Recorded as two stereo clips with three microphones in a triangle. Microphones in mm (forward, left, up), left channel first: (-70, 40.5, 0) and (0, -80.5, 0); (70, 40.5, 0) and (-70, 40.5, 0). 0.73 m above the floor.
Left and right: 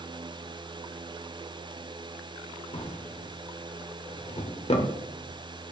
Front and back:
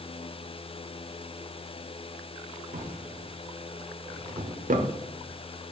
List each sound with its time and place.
2.7 s a drawer: 165° left, 0.8 m